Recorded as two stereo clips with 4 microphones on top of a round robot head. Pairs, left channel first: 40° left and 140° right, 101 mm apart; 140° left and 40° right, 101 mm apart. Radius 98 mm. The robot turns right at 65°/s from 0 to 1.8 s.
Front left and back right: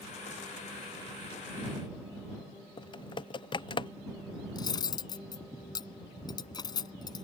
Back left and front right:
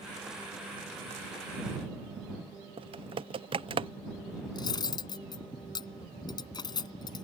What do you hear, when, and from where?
2.8 s typing on a keyboard: 5° right
4.5 s cutlery clinking: 90° left